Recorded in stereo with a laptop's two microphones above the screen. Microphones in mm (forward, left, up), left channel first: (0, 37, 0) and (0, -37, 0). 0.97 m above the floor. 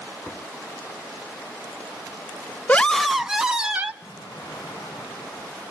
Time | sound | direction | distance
2.7 | a scream | 20° left (ahead or behind) | 0.5 m
4.0 | an explosion | 80° left | 5 m